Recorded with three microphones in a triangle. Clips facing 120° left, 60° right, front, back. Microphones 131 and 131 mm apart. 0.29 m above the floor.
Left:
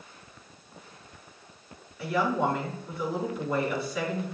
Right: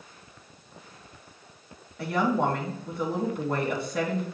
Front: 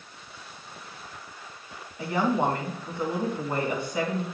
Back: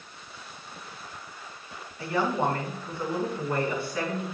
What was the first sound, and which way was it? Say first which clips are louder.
A woman speaking: right 1 dB, front 2 dB; 70° right.